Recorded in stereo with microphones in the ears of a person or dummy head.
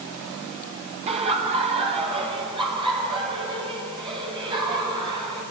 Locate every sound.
1.1 s laughter: 30° right (ahead or behind), 3 m; by 5.4 s 25° right (ahead or behind), 7.5 m